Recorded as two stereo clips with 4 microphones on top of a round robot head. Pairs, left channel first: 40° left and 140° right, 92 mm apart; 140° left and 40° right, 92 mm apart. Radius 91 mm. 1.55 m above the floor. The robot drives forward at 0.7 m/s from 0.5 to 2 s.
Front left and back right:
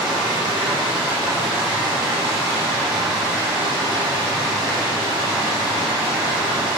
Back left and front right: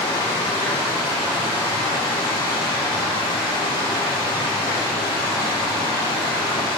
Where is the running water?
175° left, 2.0 m.